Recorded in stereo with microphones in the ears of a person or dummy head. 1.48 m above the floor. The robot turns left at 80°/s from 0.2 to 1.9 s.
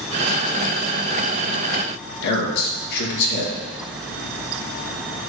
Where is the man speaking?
60° left (ahead or behind), 2 m.